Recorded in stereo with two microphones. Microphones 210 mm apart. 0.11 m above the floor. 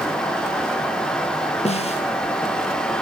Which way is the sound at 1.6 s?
30° left (ahead or behind).